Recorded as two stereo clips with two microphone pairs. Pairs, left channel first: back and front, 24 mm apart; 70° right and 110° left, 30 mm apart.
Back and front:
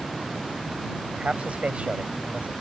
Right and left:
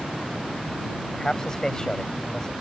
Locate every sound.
1.1 s a man speaking: 5° right